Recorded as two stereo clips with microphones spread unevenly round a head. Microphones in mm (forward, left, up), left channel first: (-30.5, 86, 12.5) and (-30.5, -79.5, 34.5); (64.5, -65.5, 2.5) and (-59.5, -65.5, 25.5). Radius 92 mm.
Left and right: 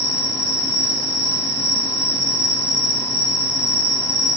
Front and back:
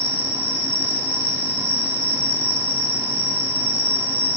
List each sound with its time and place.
0.0 s an insect: 140° left, 3.5 m